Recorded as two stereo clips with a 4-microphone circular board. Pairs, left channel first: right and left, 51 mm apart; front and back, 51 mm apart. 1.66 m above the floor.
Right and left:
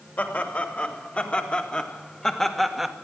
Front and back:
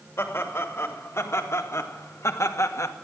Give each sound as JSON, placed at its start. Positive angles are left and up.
{"t": 0.2, "sound": "laughter", "azimuth_deg": -35, "distance_m": 3.0}